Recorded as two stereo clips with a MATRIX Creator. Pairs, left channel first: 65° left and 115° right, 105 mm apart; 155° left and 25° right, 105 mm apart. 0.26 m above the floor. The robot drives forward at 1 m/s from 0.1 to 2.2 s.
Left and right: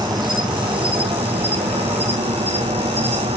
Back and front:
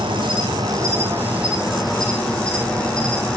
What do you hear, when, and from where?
0.0 s an insect: 60° right, 2 m; by 3.4 s 120° right, 2 m